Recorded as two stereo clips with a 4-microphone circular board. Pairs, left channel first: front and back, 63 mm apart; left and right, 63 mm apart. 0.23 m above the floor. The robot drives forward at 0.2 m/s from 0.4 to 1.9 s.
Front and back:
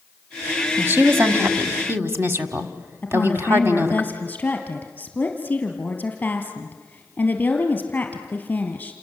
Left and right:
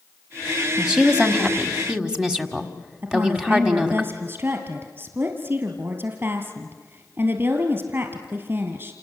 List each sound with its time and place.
0.8 s a woman speaking: 160° right, 1.5 m; by 4.0 s 165° right, 1.7 m
3.0 s a woman speaking: 55° right, 2.5 m